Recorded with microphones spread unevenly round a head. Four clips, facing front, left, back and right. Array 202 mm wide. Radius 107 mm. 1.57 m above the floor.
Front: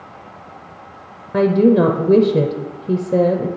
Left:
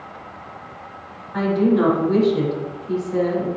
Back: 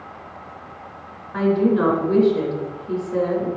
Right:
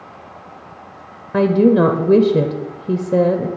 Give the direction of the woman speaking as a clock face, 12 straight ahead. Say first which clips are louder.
Right 5 dB, front 5 dB; 2 o'clock.